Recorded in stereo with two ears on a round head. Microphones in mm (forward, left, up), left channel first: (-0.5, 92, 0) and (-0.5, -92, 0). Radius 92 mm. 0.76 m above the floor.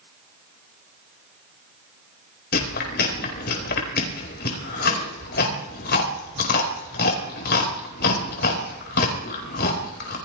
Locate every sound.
2.5 s chewing: 55° left (ahead or behind), 4.5 m